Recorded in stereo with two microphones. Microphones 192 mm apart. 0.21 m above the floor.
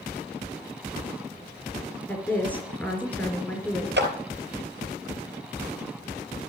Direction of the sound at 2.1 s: 10° left (ahead or behind).